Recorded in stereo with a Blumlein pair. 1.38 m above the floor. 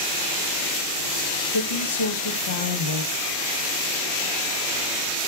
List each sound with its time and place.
1.5 s a woman speaking: 60° left, 0.7 m